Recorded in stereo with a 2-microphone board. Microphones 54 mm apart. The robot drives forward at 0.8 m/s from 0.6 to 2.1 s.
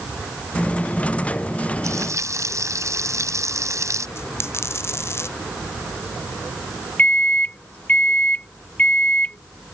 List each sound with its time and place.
1.8 s frying: 70° right (ahead or behind)
4.2 s a dropped coin: 50° left (ahead or behind)
7.0 s a microwave: 25° left (ahead or behind)